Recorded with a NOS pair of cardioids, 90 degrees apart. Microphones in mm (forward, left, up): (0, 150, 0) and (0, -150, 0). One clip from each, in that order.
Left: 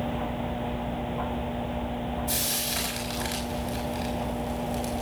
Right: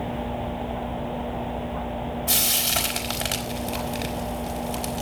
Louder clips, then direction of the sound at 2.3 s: Right 8 dB; 55° right.